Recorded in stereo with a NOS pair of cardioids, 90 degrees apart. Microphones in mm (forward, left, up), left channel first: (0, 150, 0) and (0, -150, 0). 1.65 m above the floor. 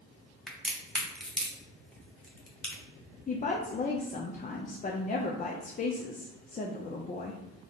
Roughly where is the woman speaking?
Ahead left.